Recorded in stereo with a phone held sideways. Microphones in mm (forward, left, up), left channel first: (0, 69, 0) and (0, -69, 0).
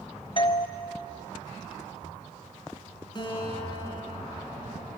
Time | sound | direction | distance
0.4 | a doorbell | 35° left (ahead or behind) | 0.8 m
3.1 | a guitar | 35° left (ahead or behind) | 5 m